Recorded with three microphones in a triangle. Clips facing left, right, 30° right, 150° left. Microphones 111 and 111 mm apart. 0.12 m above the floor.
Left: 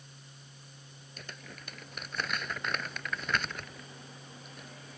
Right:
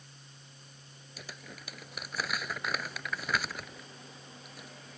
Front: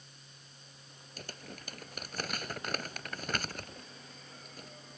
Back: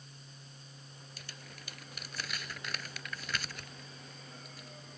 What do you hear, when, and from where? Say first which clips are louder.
1.2 s crumpling: even, front 8 dB; 5° right